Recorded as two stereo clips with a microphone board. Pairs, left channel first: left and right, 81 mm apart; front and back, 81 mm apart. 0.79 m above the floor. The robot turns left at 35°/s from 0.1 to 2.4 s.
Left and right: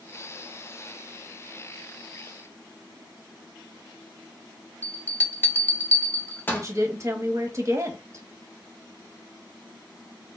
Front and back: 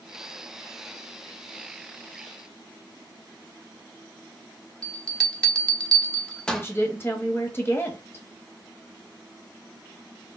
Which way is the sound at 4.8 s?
65° left.